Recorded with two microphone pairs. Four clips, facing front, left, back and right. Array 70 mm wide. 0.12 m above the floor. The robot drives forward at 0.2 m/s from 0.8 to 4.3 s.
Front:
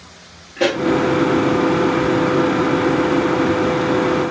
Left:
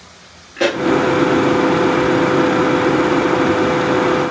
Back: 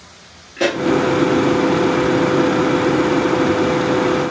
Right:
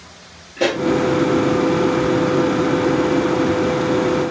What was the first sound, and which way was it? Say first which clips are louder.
A pop: left 2 dB, front 1 dB; 85° left.